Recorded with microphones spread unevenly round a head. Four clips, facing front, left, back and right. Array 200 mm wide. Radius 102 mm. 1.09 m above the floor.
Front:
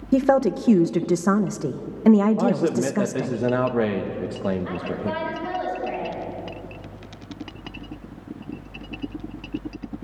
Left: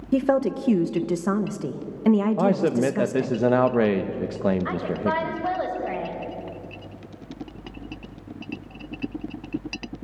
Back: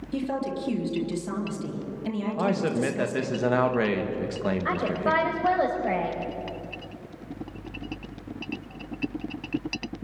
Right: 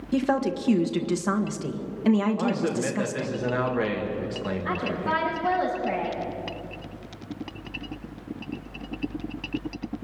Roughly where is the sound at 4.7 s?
Behind.